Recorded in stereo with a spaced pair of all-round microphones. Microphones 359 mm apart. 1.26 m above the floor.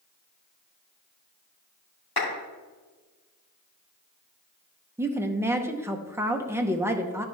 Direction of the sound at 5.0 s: 5° right (ahead or behind).